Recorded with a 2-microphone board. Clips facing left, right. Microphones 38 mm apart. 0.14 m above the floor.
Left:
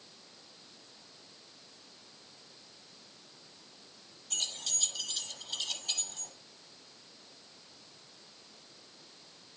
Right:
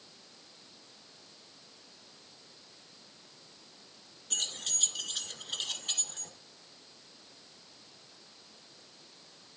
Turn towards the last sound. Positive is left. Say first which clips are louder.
# right 1 dB
turn(degrees=-40)  # may be behind; listen again after turning